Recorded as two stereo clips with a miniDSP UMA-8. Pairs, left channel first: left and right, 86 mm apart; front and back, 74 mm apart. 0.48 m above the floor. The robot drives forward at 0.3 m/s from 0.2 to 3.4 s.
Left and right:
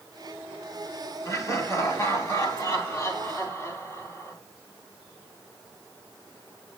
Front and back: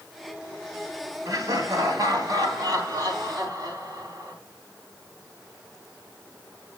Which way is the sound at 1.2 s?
145° left.